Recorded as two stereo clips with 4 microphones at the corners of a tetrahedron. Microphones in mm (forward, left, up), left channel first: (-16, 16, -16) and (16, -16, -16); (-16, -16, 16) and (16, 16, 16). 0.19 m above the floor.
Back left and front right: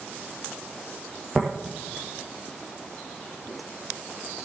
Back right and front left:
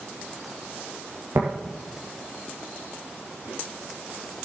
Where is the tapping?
50° left, 3.5 m.